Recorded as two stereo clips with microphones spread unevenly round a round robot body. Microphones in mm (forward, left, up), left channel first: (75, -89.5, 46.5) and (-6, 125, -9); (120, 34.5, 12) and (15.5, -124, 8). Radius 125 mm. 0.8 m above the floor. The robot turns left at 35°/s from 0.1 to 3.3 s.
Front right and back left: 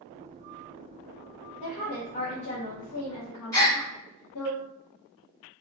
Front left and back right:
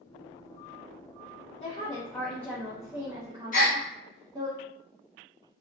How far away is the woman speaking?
About 0.7 m.